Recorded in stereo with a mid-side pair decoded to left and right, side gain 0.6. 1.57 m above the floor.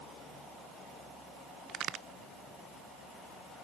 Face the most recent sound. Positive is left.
turn(degrees=-50)